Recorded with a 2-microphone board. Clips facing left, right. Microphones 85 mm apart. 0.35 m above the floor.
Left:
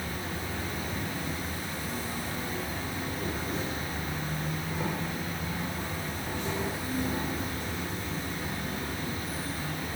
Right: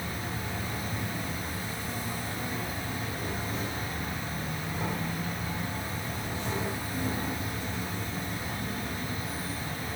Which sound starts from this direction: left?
An insect, at 0.0 s.